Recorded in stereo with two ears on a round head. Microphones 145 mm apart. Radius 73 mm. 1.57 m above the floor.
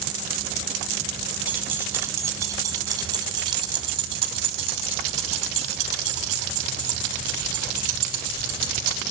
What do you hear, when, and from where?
1.5 s keys jangling: 10° right (ahead or behind), 3.5 m; by 9.0 s 60° right (ahead or behind), 6 m